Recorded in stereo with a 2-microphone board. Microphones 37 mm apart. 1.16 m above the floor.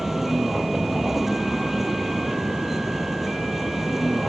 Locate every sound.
0.0 s a vehicle: 10° right (ahead or behind)